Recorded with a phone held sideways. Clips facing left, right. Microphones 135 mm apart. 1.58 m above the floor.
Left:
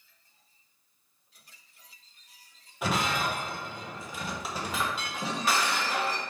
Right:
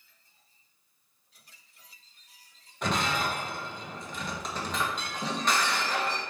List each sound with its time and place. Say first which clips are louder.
2.8 s breaking glass: even; 5° left (ahead or behind), 0.7 m